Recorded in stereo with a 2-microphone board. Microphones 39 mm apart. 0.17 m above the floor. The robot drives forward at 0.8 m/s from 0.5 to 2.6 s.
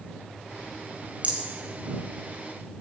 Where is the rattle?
35° right (ahead or behind), 1.1 m.